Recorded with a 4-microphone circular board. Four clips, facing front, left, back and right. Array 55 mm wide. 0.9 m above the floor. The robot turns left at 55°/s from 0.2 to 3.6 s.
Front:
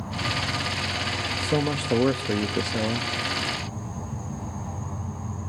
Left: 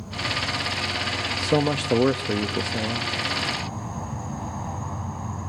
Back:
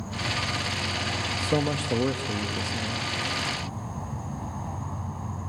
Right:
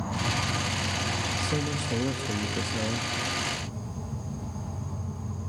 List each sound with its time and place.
0.0 s an insect: 70° right, 2 m; by 5.5 s 105° left, 2 m
1.4 s a man speaking: 100° left, 1.1 m; by 3.1 s 10° left, 1.1 m